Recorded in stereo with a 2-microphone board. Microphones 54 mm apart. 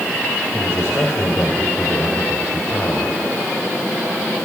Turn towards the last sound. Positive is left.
turn(degrees=55)  # may be behind; listen again after turning